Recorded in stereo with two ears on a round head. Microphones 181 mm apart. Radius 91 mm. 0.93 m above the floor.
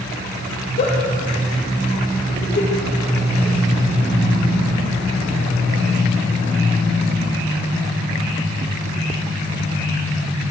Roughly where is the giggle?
Left.